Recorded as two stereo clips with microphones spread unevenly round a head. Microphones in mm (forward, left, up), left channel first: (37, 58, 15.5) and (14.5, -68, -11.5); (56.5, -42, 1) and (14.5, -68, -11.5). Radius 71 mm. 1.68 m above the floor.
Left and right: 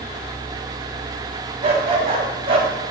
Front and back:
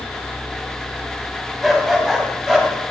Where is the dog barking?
50° right, 5 m; by 2.7 s 45° right, 3.5 m.